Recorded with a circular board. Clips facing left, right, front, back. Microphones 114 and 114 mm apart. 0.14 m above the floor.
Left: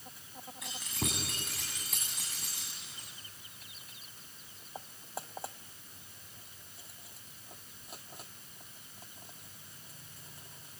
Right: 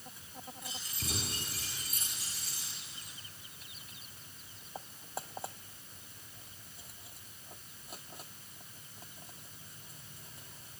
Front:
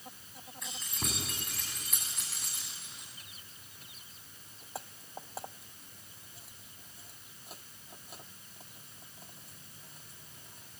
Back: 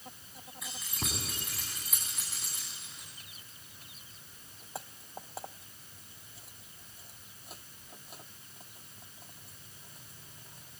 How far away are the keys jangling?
About 9 m.